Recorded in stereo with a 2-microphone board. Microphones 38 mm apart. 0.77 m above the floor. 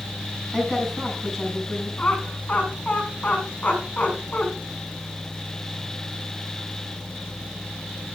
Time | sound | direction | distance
0.5 | a woman speaking | centre (ahead or behind) | 6.5 m
2.0 | laughter | 35° left (ahead or behind) | 6.5 m